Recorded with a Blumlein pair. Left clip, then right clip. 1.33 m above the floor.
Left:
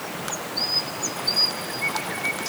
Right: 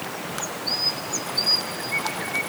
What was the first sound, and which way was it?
Only background noise.